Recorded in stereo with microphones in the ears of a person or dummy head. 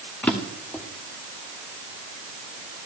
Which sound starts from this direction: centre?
A drawer, at 0.2 s.